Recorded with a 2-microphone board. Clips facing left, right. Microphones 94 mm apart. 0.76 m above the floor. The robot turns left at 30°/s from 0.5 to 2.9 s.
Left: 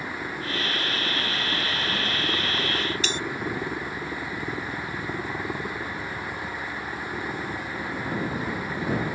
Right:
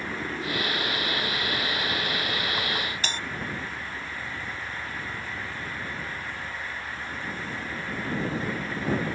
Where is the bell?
45° right (ahead or behind).